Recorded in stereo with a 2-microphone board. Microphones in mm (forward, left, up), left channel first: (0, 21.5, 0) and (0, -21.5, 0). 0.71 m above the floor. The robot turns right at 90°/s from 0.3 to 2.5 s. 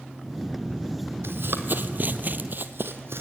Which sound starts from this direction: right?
Running footsteps, at 1.2 s.